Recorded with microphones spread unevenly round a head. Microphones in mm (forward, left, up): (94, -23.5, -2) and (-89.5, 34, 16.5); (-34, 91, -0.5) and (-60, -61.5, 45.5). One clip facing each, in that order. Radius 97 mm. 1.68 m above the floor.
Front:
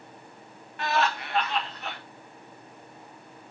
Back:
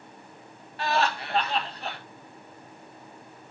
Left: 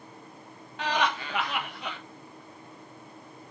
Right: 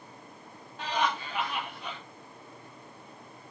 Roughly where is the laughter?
Left.